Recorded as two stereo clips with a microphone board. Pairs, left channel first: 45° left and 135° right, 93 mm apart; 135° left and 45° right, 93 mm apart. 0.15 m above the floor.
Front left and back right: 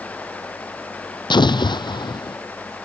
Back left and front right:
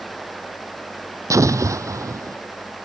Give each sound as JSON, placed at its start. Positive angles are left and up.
{"t": 1.3, "sound": "an explosion", "azimuth_deg": 10}